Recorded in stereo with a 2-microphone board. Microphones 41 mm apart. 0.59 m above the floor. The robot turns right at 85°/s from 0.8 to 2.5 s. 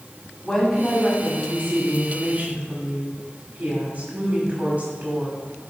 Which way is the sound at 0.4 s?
160° left.